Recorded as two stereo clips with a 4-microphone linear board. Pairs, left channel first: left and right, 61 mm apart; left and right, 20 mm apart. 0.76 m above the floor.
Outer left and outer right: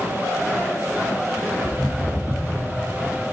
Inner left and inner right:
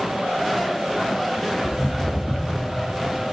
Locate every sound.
1.6 s footsteps: 10° left (ahead or behind), 2 m; by 2.7 s 20° left (ahead or behind), 2.5 m